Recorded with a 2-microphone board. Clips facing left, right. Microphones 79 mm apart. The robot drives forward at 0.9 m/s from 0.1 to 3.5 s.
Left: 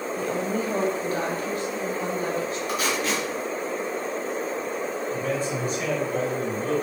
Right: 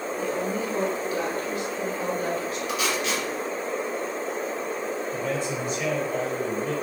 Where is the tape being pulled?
40° left (ahead or behind), 2.5 m; by 3.2 s 35° left (ahead or behind), 3 m.